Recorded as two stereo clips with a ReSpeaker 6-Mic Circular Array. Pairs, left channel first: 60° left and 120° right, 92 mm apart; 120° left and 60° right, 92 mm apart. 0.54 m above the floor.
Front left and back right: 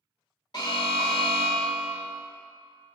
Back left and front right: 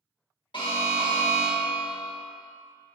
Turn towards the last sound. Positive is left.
turn(degrees=95)